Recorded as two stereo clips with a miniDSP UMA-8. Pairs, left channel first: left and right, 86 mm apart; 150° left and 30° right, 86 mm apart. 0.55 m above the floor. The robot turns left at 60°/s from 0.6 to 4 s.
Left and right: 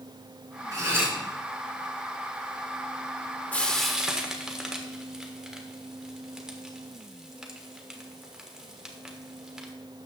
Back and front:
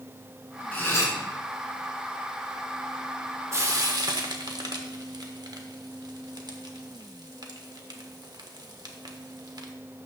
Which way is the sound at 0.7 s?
140° right.